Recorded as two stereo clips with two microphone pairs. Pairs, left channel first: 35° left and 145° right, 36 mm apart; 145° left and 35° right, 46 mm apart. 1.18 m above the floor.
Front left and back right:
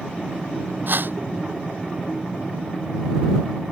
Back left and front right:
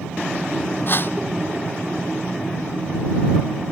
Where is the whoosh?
175° right.